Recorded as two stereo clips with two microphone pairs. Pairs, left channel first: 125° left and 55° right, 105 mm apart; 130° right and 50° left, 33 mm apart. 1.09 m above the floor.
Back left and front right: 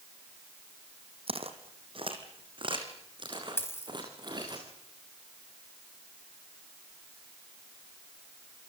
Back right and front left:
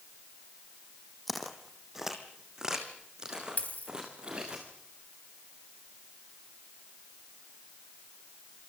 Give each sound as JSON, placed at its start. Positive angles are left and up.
{"t": 1.3, "sound": "footsteps", "azimuth_deg": -40, "distance_m": 2.5}
{"t": 3.6, "sound": "a dropped coin", "azimuth_deg": -170, "distance_m": 3.0}